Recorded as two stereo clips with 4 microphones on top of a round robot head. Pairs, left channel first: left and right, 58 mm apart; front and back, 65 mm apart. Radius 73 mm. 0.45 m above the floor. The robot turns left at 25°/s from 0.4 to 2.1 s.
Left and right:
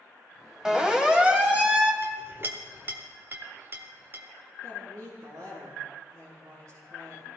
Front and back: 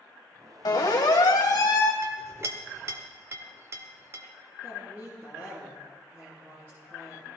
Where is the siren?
10° right, 2.5 m; by 1.9 s 25° right, 2 m.